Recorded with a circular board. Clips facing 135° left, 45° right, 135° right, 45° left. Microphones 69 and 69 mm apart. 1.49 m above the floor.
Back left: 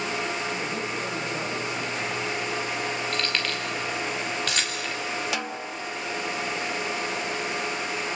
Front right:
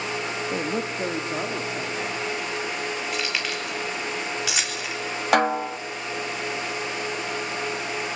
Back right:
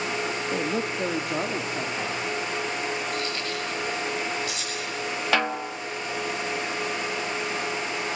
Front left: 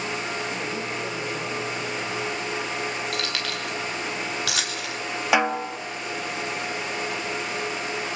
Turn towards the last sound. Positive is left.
turn(degrees=-25)